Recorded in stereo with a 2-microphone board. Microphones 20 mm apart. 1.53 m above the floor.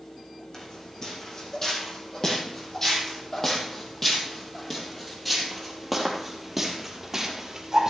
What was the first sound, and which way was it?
Footsteps, 35° left (ahead or behind).